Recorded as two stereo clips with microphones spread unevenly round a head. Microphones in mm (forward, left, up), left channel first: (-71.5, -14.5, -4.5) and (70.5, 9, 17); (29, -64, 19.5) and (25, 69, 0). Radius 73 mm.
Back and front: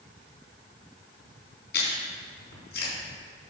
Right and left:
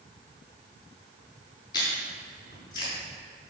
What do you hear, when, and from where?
1.7 s chewing: 150° right, 4 m